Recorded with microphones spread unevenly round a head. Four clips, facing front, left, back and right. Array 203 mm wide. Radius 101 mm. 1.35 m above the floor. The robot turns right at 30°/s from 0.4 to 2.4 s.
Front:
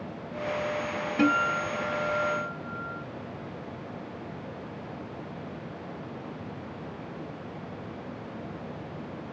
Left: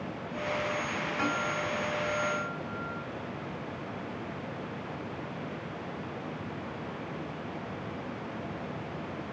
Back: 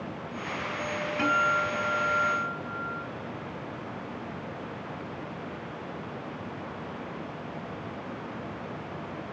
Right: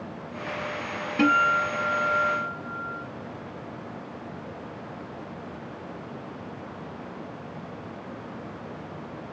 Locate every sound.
1.2 s a guitar: 55° right, 0.7 m; by 3.1 s 15° right, 0.7 m